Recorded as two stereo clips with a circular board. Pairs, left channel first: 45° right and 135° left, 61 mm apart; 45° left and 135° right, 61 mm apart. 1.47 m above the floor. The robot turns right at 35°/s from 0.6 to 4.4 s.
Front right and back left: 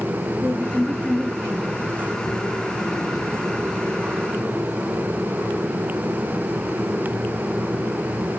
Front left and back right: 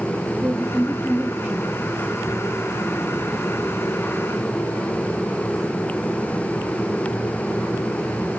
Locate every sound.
0.4 s a woman speaking: 100° right, 1.7 m; by 1.7 s 60° right, 1.7 m